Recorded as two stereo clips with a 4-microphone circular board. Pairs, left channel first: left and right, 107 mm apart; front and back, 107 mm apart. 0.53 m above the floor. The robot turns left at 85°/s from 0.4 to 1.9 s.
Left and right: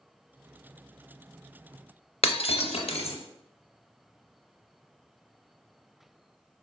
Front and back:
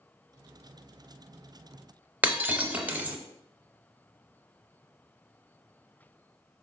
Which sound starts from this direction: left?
Breaking glass, at 2.2 s.